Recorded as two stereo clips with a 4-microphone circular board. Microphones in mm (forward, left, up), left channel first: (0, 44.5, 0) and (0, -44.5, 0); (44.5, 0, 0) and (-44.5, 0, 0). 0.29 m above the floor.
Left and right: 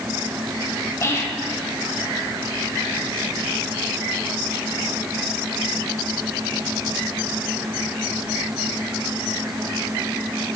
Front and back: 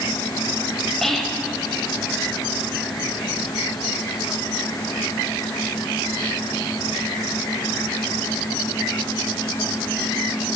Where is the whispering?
85° left, 1.3 m.